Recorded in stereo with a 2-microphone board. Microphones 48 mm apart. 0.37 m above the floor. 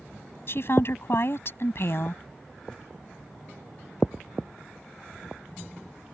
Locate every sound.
0.5 s a woman speaking: 55° left (ahead or behind)